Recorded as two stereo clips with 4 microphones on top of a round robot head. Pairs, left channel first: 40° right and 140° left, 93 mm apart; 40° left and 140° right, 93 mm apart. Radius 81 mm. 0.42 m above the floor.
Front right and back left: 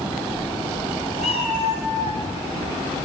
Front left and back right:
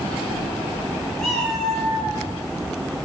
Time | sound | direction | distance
1.2 | a cat meowing | 50° right | 5 m